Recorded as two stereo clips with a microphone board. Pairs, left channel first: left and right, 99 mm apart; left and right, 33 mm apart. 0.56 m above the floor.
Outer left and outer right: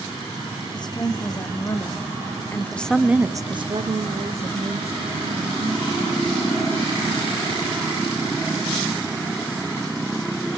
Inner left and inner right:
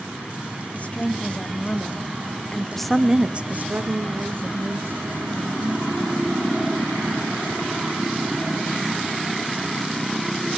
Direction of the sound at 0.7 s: 45° left (ahead or behind).